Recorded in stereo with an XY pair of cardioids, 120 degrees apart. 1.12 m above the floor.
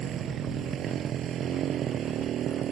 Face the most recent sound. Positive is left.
turn(degrees=-55)